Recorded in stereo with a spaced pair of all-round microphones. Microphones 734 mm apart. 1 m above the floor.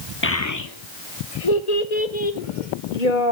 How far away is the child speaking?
About 1.3 m.